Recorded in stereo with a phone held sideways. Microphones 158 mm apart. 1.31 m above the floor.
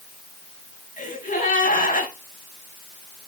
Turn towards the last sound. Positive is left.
turn(degrees=60)  # may be behind; listen again after turning